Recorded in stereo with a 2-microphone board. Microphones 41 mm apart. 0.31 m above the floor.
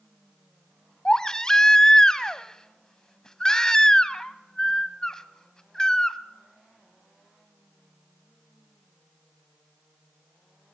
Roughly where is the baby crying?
Centre.